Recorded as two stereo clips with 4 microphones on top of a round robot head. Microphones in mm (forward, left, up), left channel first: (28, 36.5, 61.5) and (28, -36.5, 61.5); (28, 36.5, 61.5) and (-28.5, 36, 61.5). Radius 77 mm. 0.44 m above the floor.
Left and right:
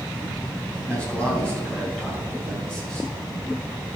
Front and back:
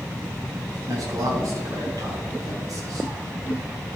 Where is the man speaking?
165° left, 4.5 m; by 3.1 s 170° left, 5.5 m.